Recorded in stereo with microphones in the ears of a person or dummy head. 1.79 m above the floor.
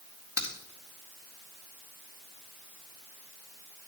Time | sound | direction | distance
0.4 | a crack | 15° right (ahead or behind) | 1.5 m